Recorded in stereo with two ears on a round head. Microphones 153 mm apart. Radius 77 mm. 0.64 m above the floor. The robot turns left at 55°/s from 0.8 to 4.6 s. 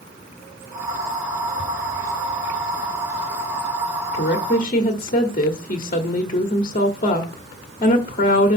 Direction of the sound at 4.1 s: 55° left (ahead or behind).